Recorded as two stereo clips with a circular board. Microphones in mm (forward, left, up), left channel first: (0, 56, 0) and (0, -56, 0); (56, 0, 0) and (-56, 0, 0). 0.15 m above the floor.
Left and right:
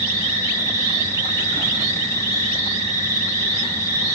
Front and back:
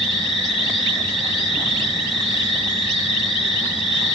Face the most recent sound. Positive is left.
turn(degrees=30)